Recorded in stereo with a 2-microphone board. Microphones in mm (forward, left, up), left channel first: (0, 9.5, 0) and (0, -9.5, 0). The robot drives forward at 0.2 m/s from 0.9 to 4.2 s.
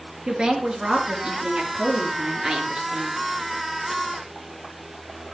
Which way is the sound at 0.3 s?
35° right (ahead or behind).